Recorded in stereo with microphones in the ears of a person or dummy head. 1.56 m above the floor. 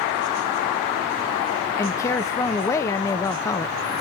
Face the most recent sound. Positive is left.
turn(degrees=15)  # may be behind; listen again after turning